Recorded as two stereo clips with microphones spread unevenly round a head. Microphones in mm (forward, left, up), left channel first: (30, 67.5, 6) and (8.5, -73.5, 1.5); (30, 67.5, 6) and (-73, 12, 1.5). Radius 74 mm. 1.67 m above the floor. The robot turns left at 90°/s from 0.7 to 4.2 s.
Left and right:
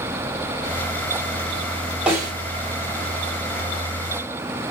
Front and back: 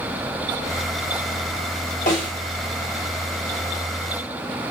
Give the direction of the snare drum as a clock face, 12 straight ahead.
1 o'clock.